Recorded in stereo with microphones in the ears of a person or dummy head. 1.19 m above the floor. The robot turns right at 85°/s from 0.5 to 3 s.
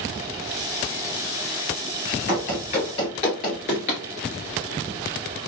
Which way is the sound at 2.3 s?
45° left (ahead or behind).